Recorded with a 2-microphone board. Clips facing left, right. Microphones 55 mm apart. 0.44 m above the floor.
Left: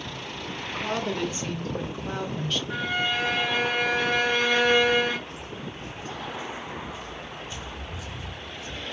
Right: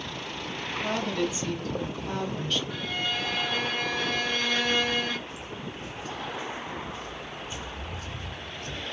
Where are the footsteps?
60° left (ahead or behind), 1.3 m; by 8.8 s 60° right (ahead or behind), 1.3 m.